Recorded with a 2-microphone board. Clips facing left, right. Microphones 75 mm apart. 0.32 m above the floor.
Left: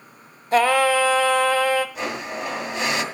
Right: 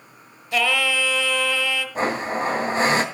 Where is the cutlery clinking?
I don't hear cutlery clinking.